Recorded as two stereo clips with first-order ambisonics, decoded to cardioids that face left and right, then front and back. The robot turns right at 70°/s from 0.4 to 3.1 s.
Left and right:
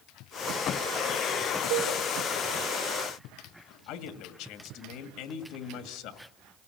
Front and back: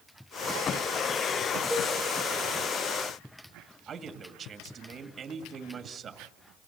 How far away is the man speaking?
About 1.9 m.